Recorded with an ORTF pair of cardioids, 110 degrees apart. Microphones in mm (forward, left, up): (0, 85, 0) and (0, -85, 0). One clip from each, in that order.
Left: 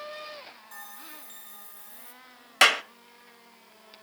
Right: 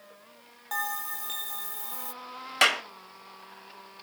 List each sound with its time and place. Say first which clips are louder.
0.7 s a bell: right 16 dB; 70° right, 2 m
2.6 s a clap: left 3 dB; 15° left, 1.0 m